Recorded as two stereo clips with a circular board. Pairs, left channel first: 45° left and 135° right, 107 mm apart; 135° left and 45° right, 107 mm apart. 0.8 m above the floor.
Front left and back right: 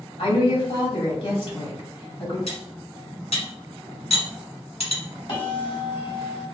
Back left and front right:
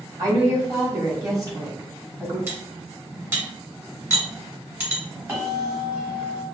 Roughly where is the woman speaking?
Ahead.